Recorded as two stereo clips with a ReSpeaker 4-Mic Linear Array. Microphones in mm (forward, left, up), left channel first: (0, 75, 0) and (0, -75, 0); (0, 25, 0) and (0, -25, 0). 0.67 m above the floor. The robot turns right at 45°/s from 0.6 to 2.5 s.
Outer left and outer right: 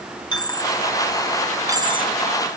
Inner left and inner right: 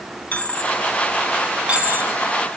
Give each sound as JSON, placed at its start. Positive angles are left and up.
{"t": 0.3, "sound": "a dropped coin", "side_deg": 30, "distance_m": 3.5}